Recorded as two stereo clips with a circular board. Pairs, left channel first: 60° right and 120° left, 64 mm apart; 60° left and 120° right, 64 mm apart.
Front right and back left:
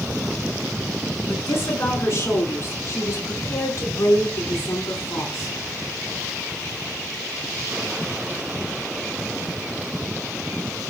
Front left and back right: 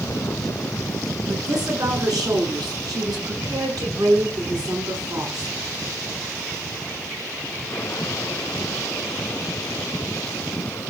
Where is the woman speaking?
110° right, 8.5 m; by 5.6 s 95° right, 7 m.